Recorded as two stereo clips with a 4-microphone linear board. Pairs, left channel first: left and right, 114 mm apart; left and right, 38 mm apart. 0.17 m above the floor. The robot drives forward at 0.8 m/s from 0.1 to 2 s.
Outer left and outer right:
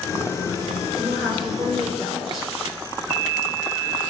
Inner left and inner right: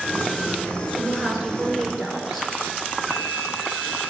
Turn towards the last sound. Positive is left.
turn(degrees=0)  # may be behind; listen again after turning